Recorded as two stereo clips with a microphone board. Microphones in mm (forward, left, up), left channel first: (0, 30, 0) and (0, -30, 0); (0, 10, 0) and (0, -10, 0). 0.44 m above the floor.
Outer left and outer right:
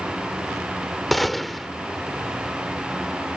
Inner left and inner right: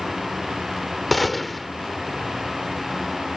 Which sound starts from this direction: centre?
A gunshot, at 1.1 s.